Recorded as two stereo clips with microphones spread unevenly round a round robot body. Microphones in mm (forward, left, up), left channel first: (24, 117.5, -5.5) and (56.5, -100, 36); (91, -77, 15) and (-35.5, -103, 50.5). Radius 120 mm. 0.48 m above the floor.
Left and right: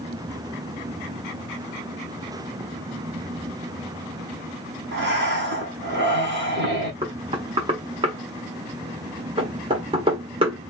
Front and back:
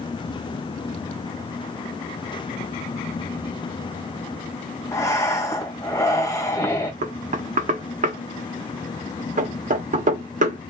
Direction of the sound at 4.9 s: 40° right.